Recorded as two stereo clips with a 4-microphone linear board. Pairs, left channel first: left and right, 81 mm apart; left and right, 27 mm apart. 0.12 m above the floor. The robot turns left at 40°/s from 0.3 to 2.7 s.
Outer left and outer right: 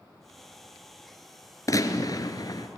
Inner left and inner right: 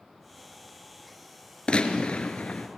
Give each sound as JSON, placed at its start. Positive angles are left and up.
{"t": 1.7, "sound": "a gunshot", "azimuth_deg": 120, "distance_m": 1.5}